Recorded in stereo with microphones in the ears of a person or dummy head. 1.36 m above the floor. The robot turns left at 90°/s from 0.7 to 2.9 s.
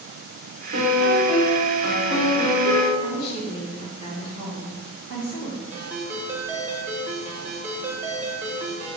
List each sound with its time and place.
0.7 s a piano: 115° right, 1.7 m; by 2.9 s 50° left, 1.7 m
3.0 s a woman speaking: 25° left (ahead or behind), 1.5 m
5.7 s a ringtone: 10° right (ahead or behind), 0.7 m